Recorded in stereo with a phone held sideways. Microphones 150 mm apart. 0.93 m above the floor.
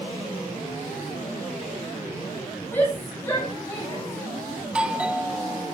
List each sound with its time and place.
2.7 s a shout: 15° left (ahead or behind), 3 m; by 4.5 s 20° left (ahead or behind), 5.5 m
4.6 s a doorbell: 5° right (ahead or behind), 2 m